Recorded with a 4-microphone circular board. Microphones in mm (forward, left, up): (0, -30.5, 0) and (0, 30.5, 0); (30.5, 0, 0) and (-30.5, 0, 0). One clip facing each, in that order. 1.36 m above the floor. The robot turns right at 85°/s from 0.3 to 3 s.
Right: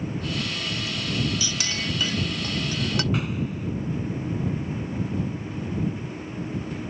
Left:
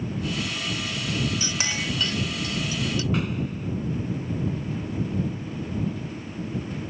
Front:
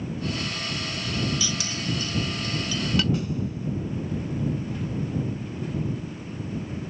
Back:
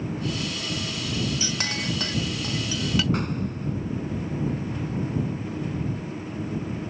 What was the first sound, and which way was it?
A clink, 135° left.